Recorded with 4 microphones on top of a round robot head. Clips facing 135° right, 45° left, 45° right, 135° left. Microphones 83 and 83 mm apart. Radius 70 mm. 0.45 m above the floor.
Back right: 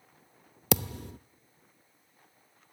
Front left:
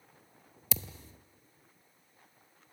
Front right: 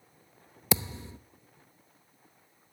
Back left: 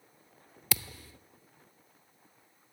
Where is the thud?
115° right, 0.7 m.